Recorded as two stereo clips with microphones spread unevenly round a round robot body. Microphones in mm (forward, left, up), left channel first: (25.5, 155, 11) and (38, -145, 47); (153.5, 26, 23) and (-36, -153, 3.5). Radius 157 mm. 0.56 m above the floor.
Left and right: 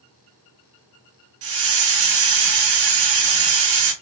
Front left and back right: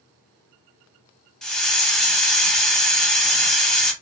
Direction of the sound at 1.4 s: 45° right.